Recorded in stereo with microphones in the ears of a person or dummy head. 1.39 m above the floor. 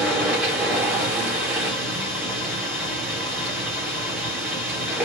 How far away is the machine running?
About 0.8 m.